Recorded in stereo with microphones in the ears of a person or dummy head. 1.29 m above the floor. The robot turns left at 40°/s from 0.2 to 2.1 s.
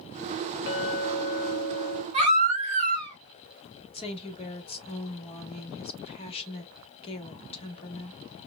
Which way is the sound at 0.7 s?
100° left.